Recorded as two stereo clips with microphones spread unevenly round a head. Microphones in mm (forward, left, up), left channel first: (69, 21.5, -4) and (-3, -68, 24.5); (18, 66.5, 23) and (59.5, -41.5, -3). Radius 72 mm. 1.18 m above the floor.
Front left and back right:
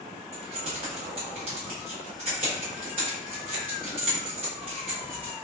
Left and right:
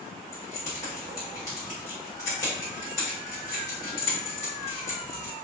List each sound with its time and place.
0.3 s keys jangling: straight behind, 1.2 m